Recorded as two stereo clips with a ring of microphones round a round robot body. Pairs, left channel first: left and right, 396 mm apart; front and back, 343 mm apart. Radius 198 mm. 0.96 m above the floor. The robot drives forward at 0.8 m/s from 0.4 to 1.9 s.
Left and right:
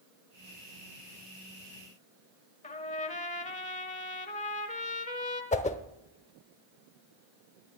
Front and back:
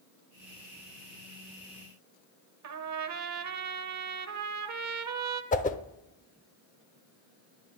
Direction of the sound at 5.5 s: 40° left.